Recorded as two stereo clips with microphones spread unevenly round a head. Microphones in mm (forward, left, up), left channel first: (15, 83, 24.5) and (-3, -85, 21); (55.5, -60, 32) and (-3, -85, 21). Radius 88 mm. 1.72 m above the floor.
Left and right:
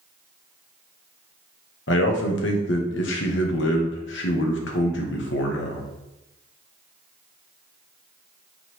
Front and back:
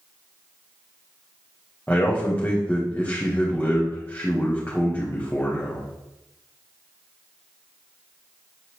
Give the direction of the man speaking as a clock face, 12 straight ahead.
9 o'clock.